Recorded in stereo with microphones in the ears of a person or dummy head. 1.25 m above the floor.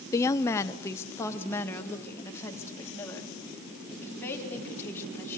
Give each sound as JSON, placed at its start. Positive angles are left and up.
{"t": 0.1, "sound": "a woman speaking", "side_deg": 20, "distance_m": 0.7}